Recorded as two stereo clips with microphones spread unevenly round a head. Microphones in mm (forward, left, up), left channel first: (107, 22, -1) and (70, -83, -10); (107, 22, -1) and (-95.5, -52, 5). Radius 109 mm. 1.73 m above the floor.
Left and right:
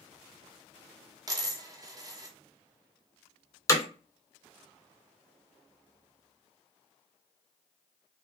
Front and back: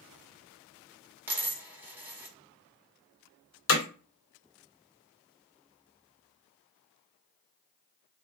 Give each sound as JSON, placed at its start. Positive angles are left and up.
{"t": 1.3, "sound": "a dropped coin", "azimuth_deg": -90, "distance_m": 1.5}
{"t": 3.7, "sound": "hammering", "azimuth_deg": 15, "distance_m": 2.0}